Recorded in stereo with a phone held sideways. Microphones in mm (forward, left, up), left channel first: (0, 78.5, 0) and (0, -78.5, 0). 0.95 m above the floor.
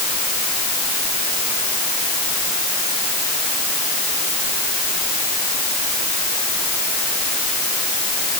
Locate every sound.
Only background noise.